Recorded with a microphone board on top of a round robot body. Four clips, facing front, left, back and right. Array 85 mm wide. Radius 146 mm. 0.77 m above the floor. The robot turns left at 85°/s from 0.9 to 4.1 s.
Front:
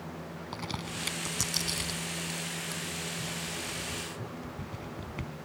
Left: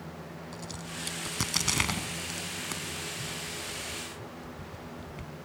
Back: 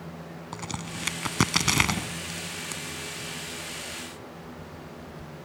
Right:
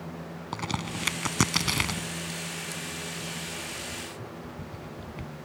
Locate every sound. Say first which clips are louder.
0.5 s a crack: right 12 dB, back 2 dB; 100° right; by 5.3 s 15° right